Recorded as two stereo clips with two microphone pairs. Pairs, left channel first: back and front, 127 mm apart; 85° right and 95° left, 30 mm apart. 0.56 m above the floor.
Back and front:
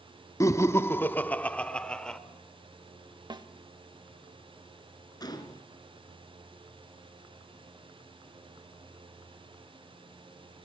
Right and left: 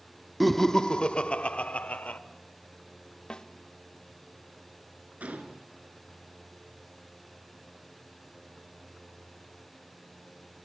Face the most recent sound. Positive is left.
turn(degrees=125)